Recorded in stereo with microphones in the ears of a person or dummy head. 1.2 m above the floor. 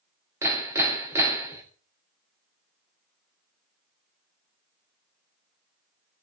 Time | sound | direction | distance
0.4 | hammering | 20° right (ahead or behind) | 2.5 m